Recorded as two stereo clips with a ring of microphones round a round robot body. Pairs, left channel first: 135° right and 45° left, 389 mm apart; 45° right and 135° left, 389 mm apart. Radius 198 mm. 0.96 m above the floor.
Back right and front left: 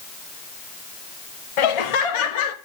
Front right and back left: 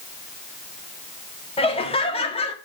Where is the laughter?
120° right, 1.5 m.